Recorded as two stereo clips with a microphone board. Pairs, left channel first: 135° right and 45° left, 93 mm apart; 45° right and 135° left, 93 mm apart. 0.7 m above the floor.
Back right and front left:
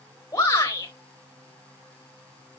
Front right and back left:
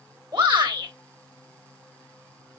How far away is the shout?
About 4 m.